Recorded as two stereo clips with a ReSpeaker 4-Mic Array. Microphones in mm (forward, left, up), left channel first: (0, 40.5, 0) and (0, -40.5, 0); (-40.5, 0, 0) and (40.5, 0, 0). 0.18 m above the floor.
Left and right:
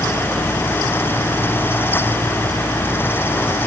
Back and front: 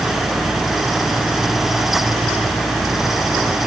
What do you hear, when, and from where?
Only background noise.